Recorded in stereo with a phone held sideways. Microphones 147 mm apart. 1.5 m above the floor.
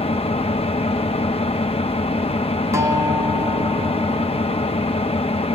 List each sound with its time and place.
0.0 s an engine running: 40° left (ahead or behind), 1.0 m
2.7 s a guitar: 20° right (ahead or behind), 1.5 m